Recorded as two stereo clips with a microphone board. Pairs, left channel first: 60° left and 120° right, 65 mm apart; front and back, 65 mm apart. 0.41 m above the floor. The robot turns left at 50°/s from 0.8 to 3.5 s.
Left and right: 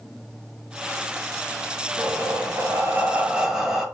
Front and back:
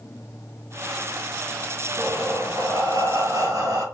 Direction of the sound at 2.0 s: 125° right.